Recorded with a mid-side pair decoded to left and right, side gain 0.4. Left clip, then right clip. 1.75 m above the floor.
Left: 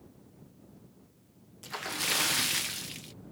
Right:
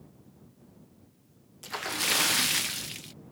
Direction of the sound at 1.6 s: 25° right.